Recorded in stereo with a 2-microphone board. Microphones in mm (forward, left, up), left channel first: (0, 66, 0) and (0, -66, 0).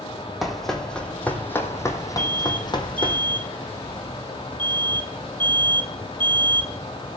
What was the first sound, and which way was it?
Running footsteps, centre (ahead or behind).